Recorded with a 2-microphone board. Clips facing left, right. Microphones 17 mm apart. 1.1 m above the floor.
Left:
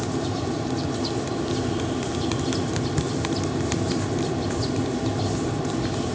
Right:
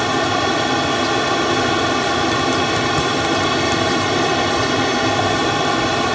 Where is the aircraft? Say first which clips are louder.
Right 10 dB; 60° right (ahead or behind).